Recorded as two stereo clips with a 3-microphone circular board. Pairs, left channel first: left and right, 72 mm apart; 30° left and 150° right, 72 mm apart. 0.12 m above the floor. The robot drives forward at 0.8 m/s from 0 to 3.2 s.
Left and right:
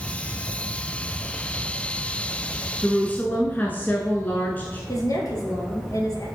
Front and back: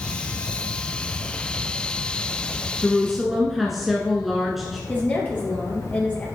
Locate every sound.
2.8 s a woman speaking: 95° left, 1.1 m; by 4.8 s 125° left, 1.2 m
4.9 s a woman speaking: 95° left, 2.5 m